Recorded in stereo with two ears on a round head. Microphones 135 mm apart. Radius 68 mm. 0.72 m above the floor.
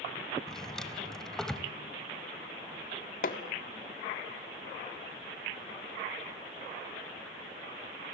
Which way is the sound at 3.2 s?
60° left (ahead or behind).